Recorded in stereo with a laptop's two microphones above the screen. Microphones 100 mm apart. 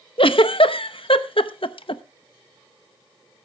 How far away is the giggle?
About 0.8 m.